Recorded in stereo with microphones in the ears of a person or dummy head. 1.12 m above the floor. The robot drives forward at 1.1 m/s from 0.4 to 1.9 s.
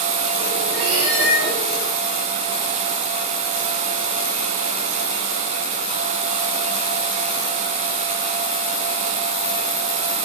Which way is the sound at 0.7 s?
80° right.